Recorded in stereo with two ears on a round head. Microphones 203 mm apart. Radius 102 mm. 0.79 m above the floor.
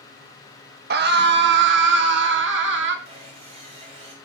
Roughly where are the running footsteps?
No running footsteps in this recording.